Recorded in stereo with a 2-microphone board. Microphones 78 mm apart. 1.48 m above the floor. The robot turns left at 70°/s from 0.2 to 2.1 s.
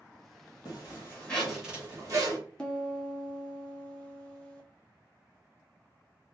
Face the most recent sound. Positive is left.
turn(degrees=10)  # may be behind; listen again after turning